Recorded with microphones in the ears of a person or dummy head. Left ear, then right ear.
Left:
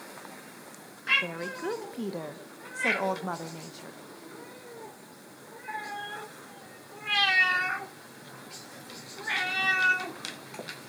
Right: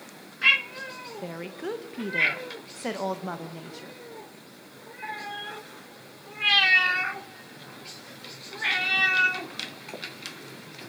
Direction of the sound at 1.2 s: Centre (ahead or behind).